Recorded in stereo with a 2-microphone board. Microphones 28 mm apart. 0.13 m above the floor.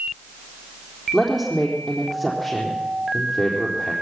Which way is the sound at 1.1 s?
20° left (ahead or behind).